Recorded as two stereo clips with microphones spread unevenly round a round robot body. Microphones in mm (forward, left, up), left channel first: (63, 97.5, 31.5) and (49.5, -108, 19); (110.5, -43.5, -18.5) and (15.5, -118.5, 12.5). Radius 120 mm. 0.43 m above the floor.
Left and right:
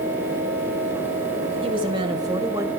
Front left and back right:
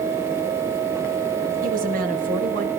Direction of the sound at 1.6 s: 155° right.